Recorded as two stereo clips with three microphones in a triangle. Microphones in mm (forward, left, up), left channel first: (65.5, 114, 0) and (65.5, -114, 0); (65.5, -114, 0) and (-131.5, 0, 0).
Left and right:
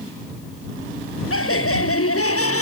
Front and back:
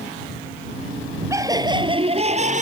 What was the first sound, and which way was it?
Laughter, 75° left.